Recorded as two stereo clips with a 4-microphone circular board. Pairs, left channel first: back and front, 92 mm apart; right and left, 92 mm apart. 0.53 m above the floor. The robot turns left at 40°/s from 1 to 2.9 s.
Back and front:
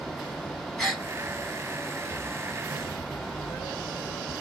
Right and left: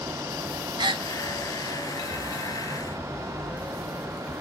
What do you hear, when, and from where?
0.8 s a gasp: 95° left, 0.8 m; by 1.1 s 90° left, 0.8 m